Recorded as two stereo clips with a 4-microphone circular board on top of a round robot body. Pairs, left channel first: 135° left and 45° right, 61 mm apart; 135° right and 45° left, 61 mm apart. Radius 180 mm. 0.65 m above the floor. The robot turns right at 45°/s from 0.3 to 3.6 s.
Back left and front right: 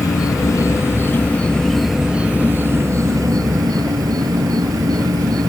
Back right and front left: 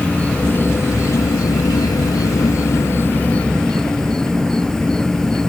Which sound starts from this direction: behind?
An insect, at 0.0 s.